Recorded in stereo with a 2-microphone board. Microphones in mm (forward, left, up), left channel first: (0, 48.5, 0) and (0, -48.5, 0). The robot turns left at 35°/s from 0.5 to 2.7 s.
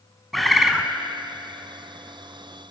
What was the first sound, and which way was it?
A bird, centre (ahead or behind).